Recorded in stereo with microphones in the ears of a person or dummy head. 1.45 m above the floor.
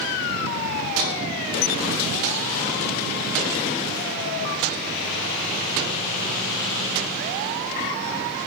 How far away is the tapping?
About 1.1 m.